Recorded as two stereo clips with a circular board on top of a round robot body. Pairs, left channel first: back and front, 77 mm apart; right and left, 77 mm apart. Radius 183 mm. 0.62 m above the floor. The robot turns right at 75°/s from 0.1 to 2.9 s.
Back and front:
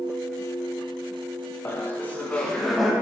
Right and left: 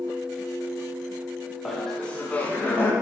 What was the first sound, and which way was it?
Laughter, 175° right.